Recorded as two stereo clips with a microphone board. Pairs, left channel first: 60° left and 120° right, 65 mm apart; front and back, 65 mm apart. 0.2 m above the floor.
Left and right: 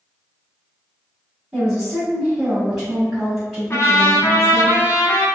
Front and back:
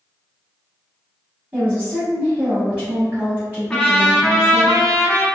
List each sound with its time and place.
1.5 s a woman speaking: 175° left, 1.5 m
3.7 s a trumpet: 80° left, 1.0 m